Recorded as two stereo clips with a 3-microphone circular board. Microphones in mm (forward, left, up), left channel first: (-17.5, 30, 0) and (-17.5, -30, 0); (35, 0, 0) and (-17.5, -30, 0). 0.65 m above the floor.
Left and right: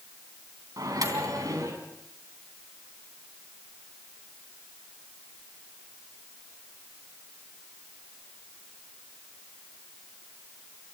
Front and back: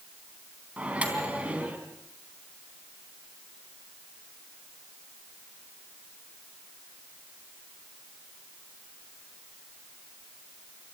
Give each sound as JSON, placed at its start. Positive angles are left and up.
{"t": 0.8, "sound": "a microwave", "azimuth_deg": -80, "distance_m": 4.0}